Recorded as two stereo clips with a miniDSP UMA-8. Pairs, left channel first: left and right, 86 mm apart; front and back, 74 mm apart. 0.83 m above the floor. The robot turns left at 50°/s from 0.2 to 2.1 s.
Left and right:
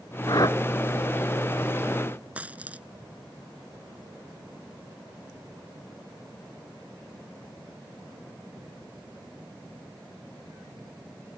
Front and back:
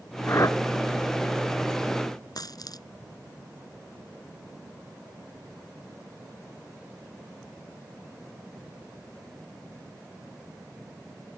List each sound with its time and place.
0.3 s a whoosh: 55° left; by 0.6 s 40° left
2.4 s a dropped coin: 20° right